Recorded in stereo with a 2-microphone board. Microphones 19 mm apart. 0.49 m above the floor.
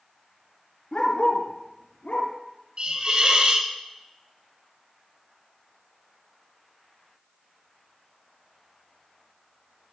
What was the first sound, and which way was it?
A dog barking, 50° left (ahead or behind).